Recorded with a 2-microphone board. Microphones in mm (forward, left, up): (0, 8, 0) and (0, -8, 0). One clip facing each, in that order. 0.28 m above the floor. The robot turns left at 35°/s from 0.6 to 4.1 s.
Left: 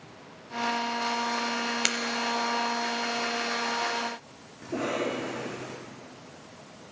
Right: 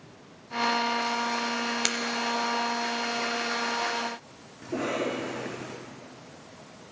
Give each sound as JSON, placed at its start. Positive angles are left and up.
{"t": 1.9, "sound": "breaking glass", "side_deg": 10, "distance_m": 0.9}
{"t": 4.6, "sound": "a cough", "side_deg": -50, "distance_m": 4.5}